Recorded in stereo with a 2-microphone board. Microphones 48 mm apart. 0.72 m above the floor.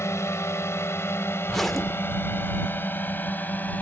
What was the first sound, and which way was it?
A drone, 65° left (ahead or behind).